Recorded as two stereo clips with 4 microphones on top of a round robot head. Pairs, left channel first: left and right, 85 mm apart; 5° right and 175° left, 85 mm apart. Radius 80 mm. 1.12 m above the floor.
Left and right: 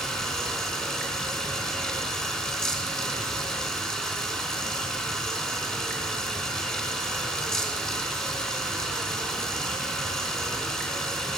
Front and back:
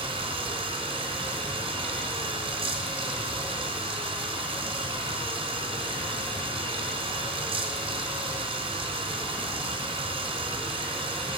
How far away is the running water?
About 4 m.